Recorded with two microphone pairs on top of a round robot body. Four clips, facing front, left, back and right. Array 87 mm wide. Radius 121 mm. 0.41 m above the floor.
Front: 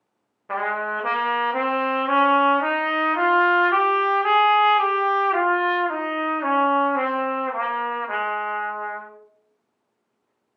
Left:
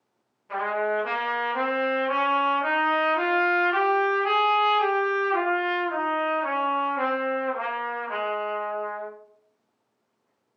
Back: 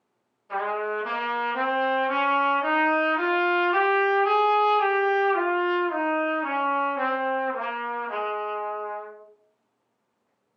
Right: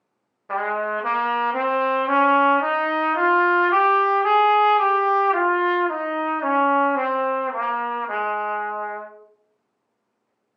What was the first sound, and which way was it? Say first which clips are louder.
A trumpet: right 2 dB, front 2 dB; 45° right.